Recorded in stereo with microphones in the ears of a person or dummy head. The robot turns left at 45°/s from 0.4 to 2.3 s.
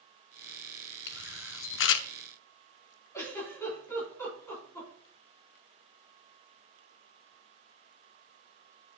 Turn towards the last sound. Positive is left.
turn(degrees=15)  # may be behind; listen again after turning